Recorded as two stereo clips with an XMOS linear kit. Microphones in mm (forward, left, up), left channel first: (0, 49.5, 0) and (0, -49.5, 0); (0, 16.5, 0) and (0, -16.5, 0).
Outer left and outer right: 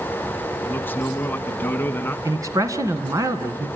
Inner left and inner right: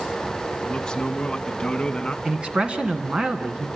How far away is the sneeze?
I don't hear a sneeze.